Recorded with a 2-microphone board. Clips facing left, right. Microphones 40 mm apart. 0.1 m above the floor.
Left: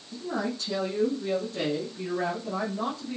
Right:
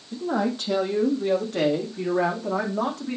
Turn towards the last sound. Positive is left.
turn(degrees=-75)  # may be behind; listen again after turning